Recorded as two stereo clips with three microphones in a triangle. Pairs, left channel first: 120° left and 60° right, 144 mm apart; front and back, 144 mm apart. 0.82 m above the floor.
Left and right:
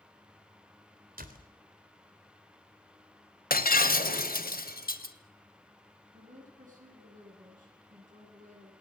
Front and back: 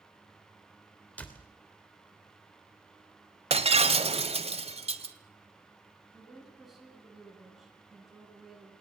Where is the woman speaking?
90° right, 10 m.